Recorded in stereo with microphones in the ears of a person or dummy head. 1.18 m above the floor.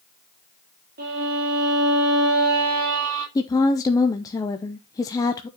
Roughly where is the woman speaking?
Centre.